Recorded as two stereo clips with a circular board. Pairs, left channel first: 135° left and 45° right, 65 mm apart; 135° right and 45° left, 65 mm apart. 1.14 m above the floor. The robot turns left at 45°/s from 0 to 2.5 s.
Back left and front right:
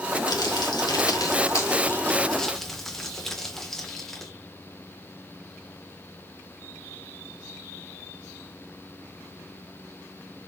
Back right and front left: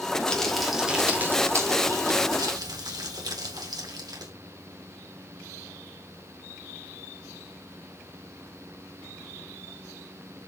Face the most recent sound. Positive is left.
turn(degrees=50)